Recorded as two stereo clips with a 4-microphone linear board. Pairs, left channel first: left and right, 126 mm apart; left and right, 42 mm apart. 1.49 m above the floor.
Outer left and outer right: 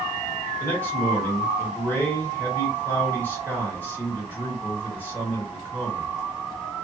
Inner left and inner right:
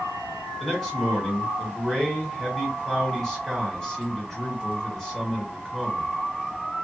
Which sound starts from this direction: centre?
A man speaking, at 0.6 s.